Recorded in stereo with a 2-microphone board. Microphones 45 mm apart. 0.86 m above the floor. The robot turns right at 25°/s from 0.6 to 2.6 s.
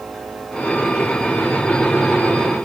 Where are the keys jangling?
No keys jangling in this recording.